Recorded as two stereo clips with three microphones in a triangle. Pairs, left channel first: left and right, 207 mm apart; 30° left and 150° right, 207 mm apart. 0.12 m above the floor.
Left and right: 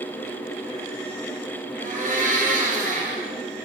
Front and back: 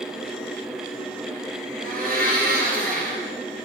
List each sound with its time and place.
1.8 s a blender: 125° right, 2.5 m